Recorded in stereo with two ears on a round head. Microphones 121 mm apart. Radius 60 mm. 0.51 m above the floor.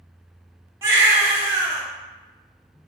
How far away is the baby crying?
About 0.8 m.